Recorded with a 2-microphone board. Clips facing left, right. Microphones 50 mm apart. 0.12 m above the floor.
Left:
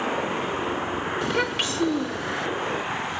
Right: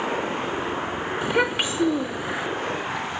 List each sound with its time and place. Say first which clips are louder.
1.2 s a child speaking: right 4 dB; 15° right (ahead or behind), 0.6 m